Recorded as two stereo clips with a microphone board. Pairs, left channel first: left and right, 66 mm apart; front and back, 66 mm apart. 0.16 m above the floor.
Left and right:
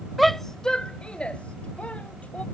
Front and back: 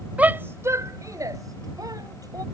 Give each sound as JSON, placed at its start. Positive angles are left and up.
{"t": 0.2, "sound": "a shout", "azimuth_deg": 180}